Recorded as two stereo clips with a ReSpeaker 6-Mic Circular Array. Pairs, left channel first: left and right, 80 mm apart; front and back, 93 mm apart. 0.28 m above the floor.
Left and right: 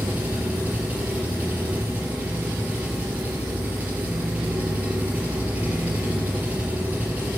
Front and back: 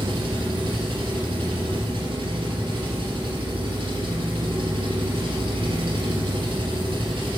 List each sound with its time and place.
0.0 s an engine running: 160° right, 4 m